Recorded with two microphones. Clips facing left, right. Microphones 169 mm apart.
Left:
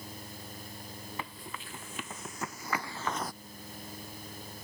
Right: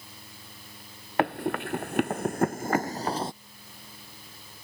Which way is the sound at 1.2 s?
70° right (ahead or behind).